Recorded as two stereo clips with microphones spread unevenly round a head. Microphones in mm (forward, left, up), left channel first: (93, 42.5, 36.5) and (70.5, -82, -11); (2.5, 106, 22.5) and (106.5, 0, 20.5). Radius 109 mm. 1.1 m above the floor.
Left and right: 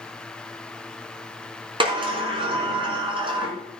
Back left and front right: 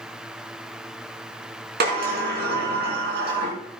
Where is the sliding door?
45° right, 3 m.